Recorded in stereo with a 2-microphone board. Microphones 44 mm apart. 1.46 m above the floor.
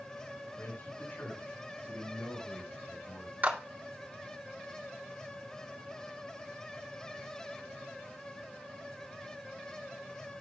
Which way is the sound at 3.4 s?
45° right (ahead or behind).